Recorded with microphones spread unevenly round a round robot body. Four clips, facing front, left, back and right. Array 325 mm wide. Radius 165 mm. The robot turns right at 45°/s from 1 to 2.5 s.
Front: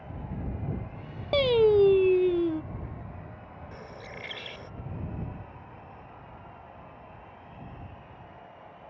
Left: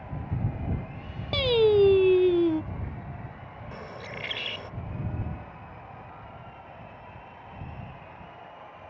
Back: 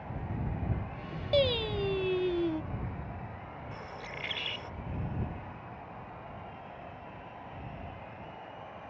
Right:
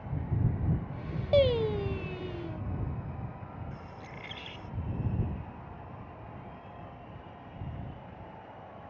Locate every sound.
1.3 s singing: 30° left; by 2.6 s 85° left
3.7 s a bird: 80° left